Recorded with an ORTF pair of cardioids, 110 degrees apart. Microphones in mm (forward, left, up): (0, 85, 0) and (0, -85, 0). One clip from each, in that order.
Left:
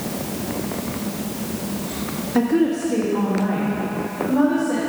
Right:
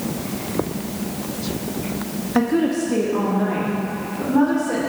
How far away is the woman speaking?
About 1.4 m.